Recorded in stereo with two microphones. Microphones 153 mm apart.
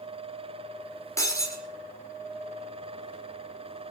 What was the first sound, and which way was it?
Breaking glass, 20° left (ahead or behind).